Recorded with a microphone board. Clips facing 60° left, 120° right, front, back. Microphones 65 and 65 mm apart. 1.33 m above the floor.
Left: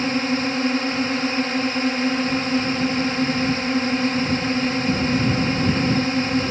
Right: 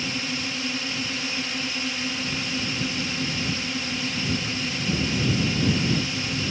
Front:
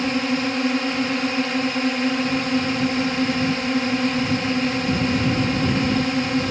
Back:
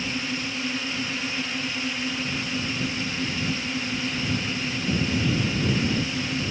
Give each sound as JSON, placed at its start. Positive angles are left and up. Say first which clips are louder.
{"t": 0.0, "sound": "a drone", "louder": "left 9 dB, front 8 dB", "azimuth_deg": 20}